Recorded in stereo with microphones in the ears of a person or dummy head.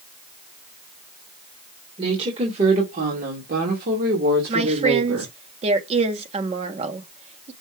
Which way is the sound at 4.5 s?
30° right (ahead or behind).